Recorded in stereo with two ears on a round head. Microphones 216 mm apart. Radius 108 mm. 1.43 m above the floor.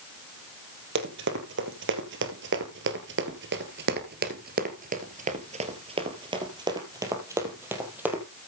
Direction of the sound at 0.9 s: 50° right (ahead or behind).